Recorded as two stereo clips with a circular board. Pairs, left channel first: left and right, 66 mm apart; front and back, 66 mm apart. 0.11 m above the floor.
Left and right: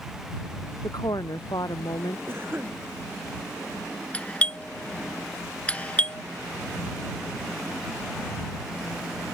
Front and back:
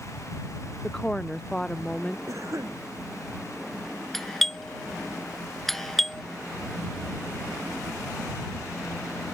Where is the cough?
145° right.